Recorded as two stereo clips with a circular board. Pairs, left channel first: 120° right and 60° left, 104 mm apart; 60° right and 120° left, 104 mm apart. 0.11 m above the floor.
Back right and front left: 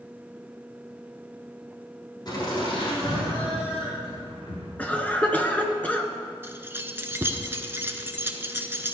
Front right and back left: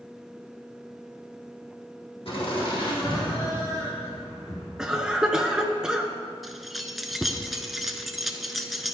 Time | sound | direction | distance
2.2 | laughter | 75° right | 3.5 m
4.8 | a cough | 170° right | 1.1 m
6.4 | keys jangling | 35° left | 0.8 m